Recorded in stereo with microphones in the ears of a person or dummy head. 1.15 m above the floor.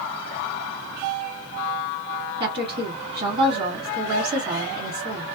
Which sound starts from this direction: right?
A woman speaking, at 2.4 s.